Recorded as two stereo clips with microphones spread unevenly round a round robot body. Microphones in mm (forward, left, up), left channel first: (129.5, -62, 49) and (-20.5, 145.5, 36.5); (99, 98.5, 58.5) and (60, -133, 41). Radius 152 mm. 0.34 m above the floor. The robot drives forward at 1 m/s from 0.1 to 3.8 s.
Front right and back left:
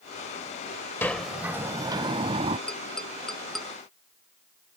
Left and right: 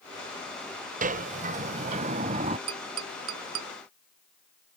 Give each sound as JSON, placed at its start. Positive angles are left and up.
{"t": 1.0, "sound": "a sliding door", "azimuth_deg": -135}
{"t": 2.7, "sound": "tapping", "azimuth_deg": -140}